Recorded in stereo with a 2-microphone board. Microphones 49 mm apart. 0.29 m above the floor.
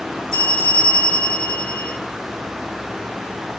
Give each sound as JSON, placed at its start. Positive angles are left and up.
{"t": 0.3, "sound": "a bell", "side_deg": 10, "distance_m": 4.5}